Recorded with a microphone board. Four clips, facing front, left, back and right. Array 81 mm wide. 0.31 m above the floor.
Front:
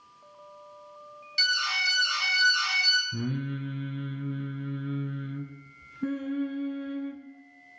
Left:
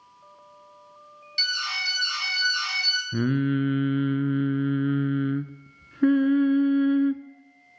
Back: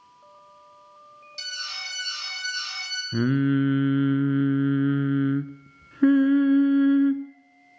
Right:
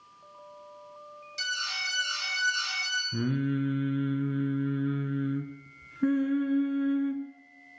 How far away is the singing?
About 0.7 m.